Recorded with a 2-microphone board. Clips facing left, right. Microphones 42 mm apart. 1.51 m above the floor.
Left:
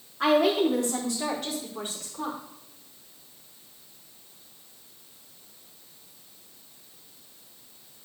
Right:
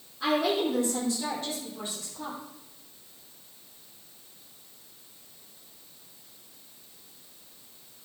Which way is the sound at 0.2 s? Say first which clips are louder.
Left 4 dB; 75° left (ahead or behind).